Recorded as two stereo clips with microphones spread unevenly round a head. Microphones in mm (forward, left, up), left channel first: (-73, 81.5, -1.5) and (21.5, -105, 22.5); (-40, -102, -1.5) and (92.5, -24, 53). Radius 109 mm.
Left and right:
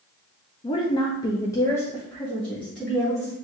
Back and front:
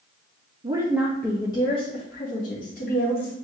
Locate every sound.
0.6 s a woman speaking: 100° left, 0.5 m; by 3.3 s 160° right, 1.5 m